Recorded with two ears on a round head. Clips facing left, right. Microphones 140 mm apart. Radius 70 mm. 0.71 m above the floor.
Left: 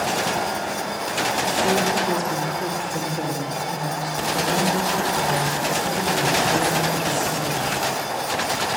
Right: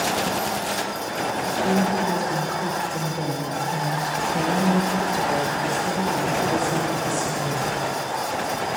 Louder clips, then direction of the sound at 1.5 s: Even; 30° left (ahead or behind).